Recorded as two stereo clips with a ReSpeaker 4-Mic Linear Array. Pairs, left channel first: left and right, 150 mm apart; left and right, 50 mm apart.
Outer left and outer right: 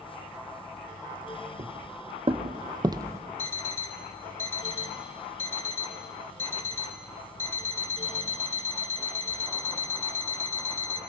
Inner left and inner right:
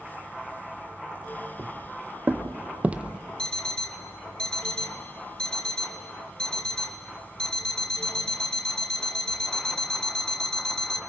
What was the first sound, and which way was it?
Footsteps, 45° right (ahead or behind).